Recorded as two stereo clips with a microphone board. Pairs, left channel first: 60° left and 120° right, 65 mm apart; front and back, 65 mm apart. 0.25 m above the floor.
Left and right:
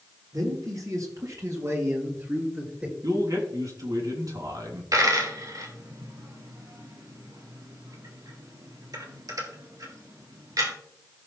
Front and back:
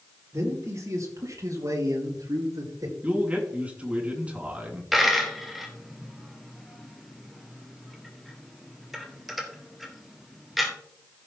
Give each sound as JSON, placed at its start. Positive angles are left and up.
{"t": 0.3, "sound": "a man speaking", "azimuth_deg": -140, "distance_m": 5.5}
{"t": 3.0, "sound": "a man speaking", "azimuth_deg": -110, "distance_m": 3.0}
{"t": 4.9, "sound": "a dropped coin", "azimuth_deg": -90, "distance_m": 2.0}